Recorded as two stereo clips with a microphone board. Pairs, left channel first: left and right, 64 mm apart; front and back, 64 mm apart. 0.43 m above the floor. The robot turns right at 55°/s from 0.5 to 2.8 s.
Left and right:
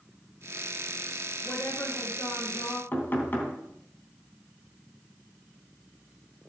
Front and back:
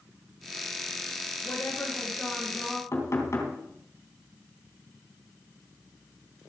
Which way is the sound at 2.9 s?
35° left.